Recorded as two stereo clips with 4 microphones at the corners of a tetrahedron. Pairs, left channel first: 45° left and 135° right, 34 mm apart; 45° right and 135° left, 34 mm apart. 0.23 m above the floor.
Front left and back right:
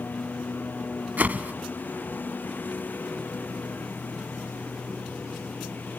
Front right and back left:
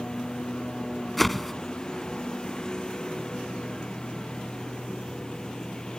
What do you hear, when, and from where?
0.0 s a lawn mower: 25° left
1.2 s a whoosh: 130° right